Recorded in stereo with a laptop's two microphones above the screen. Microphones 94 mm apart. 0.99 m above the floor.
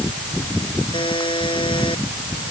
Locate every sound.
0.9 s a buzzer: 65° left (ahead or behind)